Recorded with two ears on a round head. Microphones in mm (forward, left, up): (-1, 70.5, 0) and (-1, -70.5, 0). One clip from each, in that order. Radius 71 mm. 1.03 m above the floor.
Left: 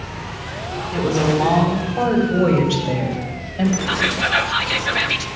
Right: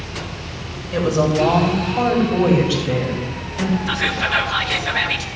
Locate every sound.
0.9 s a woman speaking: 60° right (ahead or behind), 4 m; by 3.8 s 40° right (ahead or behind), 5 m
3.9 s whispering: 5° right (ahead or behind), 0.6 m